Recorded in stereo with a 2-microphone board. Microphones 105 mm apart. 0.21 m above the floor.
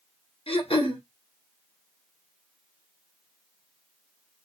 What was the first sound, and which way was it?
Throat clearing, 60° left (ahead or behind).